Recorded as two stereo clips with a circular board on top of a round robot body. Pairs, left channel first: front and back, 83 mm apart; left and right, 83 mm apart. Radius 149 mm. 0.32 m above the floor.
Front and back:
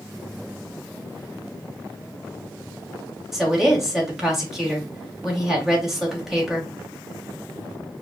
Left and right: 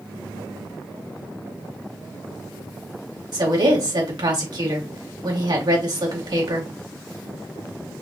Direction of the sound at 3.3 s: 95° right.